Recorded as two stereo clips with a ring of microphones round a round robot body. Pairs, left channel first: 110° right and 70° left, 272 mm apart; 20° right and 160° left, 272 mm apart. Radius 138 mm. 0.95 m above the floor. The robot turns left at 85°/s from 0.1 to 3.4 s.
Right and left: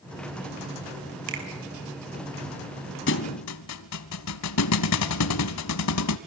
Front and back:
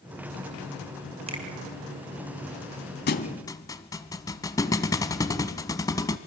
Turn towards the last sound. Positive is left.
turn(degrees=-100)